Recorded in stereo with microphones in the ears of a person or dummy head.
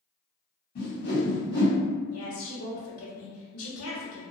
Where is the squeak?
I don't hear a squeak.